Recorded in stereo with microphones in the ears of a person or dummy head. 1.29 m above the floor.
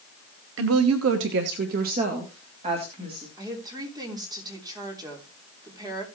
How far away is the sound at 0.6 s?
About 1.2 m.